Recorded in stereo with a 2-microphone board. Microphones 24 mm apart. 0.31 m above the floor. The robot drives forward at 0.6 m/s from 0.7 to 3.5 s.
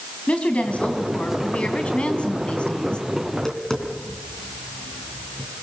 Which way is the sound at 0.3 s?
60° left (ahead or behind).